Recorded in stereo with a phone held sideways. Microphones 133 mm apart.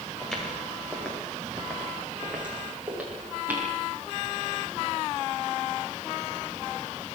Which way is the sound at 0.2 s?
5° left (ahead or behind).